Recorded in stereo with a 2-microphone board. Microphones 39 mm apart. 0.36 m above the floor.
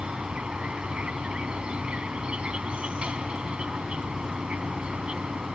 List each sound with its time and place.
0.0 s an insect: 30° right (ahead or behind)